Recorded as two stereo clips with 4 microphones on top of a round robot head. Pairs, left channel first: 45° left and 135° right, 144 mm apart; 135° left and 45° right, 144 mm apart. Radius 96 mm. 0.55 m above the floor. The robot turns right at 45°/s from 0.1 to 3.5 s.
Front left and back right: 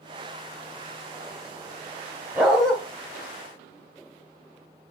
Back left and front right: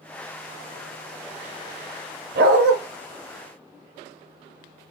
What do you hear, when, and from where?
2.4 s a dog barking: 55° right, 0.8 m; by 2.8 s 40° right, 0.8 m